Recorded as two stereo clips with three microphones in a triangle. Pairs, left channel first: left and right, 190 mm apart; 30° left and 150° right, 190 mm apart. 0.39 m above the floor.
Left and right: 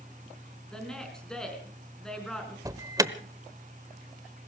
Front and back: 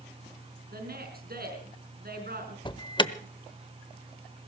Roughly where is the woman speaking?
Behind.